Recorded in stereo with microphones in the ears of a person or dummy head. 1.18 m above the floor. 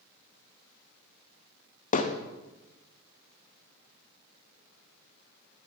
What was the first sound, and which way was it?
Hammering, 40° left (ahead or behind).